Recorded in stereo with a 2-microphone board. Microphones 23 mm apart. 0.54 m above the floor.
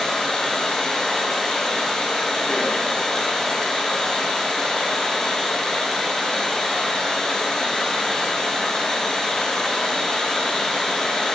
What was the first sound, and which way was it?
Running water, 20° left (ahead or behind).